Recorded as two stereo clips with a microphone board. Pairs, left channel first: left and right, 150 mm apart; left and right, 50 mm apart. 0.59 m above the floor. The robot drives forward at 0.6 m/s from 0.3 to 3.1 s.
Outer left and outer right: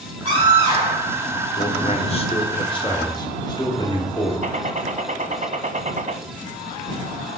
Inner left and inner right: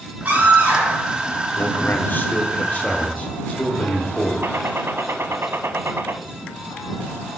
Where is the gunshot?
60° right (ahead or behind), 0.7 m.